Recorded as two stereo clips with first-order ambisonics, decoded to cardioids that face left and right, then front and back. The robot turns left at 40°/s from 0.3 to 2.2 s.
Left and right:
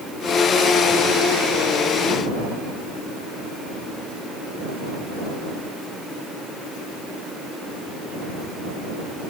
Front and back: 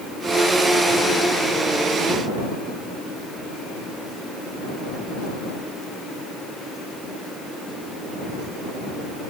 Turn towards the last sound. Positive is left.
No sound to turn to.